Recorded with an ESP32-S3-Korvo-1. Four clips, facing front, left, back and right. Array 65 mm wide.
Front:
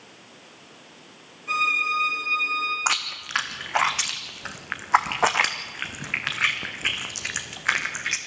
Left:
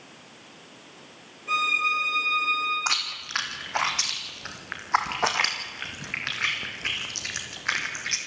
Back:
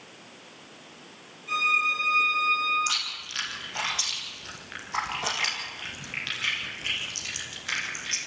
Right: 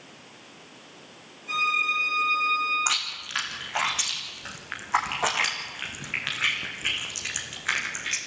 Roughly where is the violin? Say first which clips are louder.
Left 1 dB, front 2 dB; ahead left.